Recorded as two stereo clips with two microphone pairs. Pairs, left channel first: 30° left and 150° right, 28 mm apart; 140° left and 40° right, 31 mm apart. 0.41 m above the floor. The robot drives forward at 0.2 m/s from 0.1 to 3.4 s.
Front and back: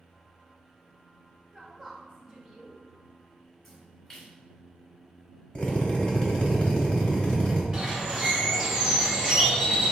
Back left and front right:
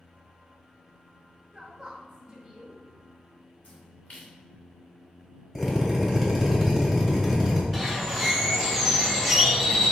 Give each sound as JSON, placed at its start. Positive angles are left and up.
{"t": 1.5, "sound": "a woman speaking", "azimuth_deg": -95, "distance_m": 0.9}
{"t": 3.6, "sound": "a splash", "azimuth_deg": 110, "distance_m": 1.3}
{"t": 5.5, "sound": "a drill", "azimuth_deg": 60, "distance_m": 1.3}
{"t": 7.7, "sound": "a bird", "azimuth_deg": -145, "distance_m": 1.0}